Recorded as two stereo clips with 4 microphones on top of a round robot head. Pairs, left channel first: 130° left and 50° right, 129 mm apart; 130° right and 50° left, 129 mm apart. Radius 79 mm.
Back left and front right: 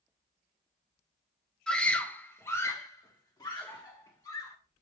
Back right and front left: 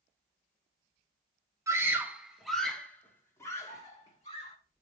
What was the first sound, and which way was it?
A scream, 55° left.